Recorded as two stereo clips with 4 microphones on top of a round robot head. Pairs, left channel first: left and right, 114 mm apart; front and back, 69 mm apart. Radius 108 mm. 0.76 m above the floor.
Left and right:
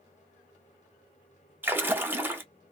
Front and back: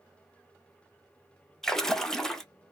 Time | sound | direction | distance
1.6 | a splash | 65° right | 1.0 m